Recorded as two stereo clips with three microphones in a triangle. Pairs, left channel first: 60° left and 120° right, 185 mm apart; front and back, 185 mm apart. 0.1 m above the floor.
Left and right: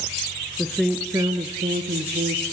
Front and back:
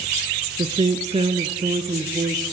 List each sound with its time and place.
0.6 s a woman speaking: 140° left, 1.4 m; by 2.5 s 115° right, 2 m